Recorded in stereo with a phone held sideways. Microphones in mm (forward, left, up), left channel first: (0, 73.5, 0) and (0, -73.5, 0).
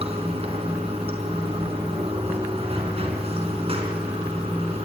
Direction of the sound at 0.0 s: 40° right (ahead or behind).